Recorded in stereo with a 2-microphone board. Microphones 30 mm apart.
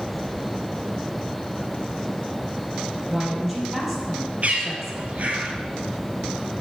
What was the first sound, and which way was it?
A woman speaking, centre (ahead or behind).